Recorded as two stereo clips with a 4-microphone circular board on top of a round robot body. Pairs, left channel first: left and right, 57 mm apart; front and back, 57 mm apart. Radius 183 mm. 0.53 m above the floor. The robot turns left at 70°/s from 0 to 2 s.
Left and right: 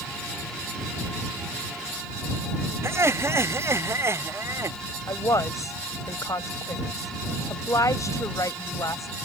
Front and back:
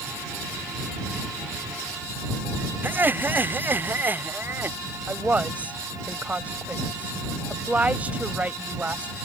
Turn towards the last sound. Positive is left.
turn(degrees=115)